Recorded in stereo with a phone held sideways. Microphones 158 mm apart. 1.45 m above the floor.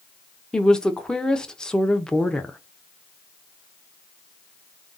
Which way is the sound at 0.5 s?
5° left (ahead or behind).